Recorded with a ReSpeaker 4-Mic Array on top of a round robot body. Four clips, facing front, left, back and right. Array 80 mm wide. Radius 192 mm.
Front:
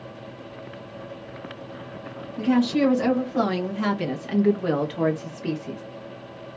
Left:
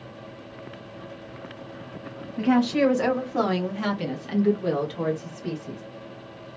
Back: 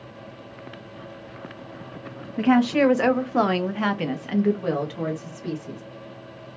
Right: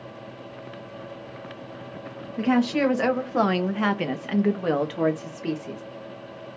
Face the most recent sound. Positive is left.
turn(degrees=-60)